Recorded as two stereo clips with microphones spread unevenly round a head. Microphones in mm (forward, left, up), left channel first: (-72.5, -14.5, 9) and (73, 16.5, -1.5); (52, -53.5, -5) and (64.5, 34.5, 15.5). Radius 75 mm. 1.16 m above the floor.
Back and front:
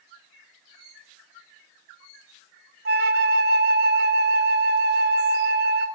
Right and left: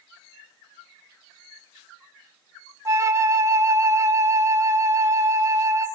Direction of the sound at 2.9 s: 35° left.